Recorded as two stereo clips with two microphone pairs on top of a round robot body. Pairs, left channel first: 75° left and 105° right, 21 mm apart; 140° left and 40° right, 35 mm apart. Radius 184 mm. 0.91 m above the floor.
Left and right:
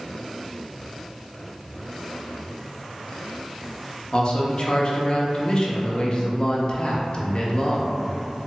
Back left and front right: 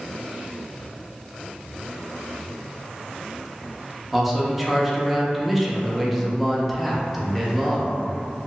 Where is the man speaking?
45° left, 0.8 m.